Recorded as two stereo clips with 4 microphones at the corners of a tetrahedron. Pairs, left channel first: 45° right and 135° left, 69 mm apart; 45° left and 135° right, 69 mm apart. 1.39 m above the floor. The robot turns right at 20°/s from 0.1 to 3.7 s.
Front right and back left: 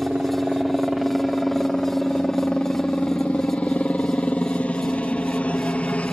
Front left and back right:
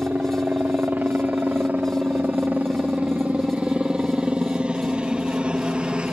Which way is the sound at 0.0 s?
155° right.